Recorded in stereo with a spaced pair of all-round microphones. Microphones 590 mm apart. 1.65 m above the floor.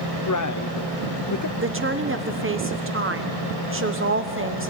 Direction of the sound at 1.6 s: 20° right (ahead or behind).